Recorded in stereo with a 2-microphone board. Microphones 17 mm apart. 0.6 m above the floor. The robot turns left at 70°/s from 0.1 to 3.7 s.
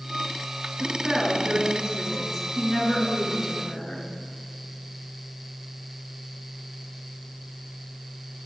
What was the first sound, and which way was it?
A woman speaking, 5° right.